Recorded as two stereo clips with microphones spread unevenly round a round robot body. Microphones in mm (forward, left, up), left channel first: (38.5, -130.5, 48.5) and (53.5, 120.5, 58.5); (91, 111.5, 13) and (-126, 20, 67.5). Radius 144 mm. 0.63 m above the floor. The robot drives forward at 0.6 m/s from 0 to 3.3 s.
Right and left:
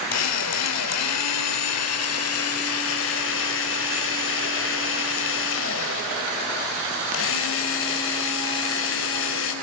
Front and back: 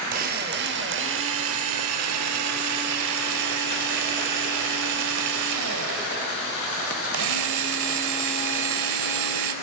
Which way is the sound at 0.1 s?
95° right.